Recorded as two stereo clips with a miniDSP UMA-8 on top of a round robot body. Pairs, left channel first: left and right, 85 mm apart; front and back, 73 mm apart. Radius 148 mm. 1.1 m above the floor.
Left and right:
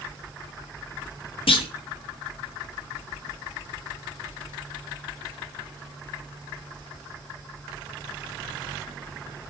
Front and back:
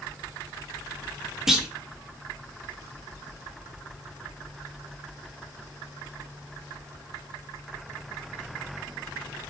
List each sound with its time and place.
1.5 s a clunk: 95° left, 1.4 m